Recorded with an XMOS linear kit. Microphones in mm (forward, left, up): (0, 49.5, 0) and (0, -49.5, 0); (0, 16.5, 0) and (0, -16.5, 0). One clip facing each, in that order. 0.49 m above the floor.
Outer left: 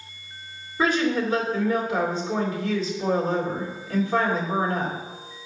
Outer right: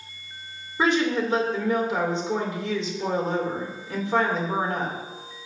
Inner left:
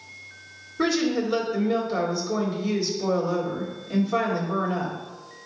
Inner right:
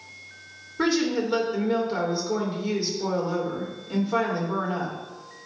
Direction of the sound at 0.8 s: 25° right (ahead or behind).